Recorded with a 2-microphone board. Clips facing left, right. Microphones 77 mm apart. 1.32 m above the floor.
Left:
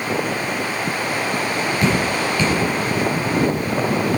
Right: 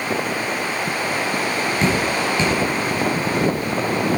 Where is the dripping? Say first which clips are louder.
Even; 25° right (ahead or behind), 4 m.